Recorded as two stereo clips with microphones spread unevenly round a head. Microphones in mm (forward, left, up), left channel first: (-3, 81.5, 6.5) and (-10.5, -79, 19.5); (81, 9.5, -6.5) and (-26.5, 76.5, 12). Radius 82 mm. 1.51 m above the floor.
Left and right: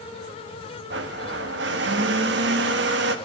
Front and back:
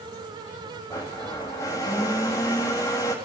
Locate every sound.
0.9 s a blender: 105° right, 1.7 m